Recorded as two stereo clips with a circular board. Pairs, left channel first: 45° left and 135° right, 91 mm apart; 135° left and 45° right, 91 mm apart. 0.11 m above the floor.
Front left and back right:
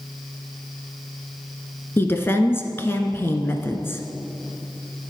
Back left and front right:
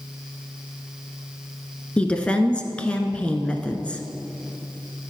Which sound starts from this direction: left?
A woman speaking, at 2.0 s.